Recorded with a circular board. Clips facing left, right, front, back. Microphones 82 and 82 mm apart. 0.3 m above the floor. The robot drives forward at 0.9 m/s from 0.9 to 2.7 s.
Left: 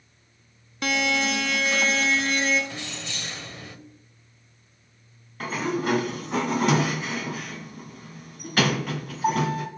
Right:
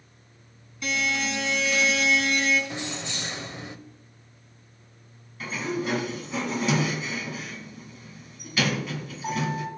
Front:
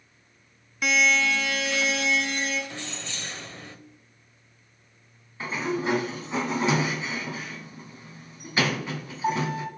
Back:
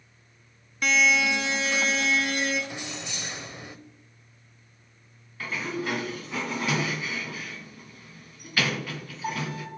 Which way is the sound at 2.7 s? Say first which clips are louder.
Right 3 dB, back 1 dB; 120° right.